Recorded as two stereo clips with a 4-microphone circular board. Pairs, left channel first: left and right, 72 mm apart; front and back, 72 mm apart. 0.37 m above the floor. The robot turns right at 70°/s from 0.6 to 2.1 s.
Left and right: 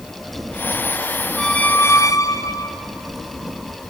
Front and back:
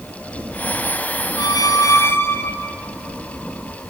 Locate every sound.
1.4 s a squeak: 5° left, 1.7 m; by 2.8 s 55° left, 1.7 m